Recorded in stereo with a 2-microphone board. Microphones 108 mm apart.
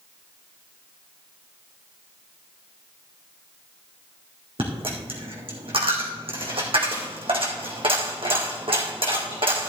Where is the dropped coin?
65° right (ahead or behind), 2 m.